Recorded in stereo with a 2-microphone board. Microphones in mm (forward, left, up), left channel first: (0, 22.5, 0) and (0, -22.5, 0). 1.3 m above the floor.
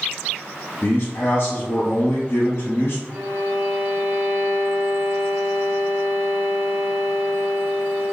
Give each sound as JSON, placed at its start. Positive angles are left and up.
{"t": 0.8, "sound": "a man speaking", "side_deg": 55, "distance_m": 0.8}
{"t": 3.1, "sound": "a violin", "side_deg": -55, "distance_m": 0.9}